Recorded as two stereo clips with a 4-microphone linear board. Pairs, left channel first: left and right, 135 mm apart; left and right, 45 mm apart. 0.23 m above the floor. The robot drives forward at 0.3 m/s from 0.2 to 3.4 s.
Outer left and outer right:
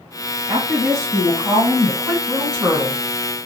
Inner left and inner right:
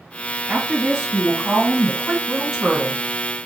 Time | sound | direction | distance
0.5 | a woman speaking | 5° right (ahead or behind) | 1.9 m